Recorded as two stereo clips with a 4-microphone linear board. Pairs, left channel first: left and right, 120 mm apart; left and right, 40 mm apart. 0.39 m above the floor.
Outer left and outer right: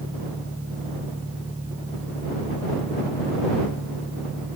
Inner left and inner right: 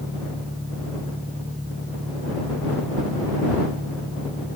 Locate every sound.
0.0 s an engine running: 25° right (ahead or behind)